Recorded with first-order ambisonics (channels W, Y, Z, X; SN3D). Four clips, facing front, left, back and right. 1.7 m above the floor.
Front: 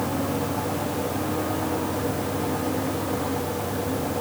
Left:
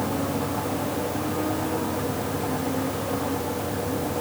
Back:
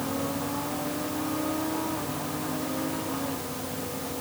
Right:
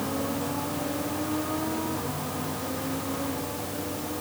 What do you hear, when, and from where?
Only background noise.